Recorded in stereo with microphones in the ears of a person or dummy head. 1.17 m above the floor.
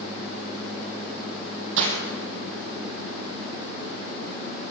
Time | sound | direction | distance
1.8 | breaking glass | 70° right (ahead or behind) | 3.5 m